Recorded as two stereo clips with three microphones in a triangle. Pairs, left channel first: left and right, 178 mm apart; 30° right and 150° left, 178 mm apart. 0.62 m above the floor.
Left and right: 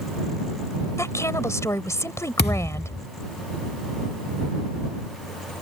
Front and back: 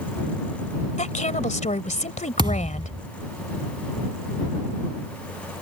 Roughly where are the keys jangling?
I don't hear keys jangling.